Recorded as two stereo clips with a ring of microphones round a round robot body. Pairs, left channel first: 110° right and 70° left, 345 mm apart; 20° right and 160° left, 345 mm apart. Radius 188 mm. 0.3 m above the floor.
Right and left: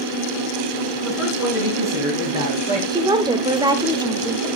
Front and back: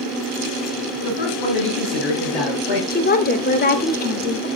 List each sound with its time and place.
1.0 s a man speaking: 20° right, 5 m; by 2.8 s 5° right, 6.5 m
2.9 s a woman speaking: 5° left, 0.9 m